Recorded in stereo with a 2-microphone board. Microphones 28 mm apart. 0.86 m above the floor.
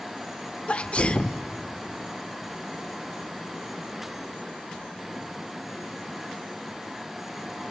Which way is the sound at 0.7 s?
40° left (ahead or behind).